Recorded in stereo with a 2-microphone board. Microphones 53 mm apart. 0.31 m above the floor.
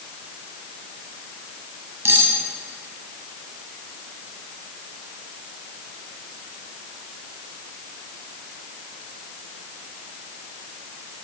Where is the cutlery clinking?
55° right (ahead or behind), 1.3 m.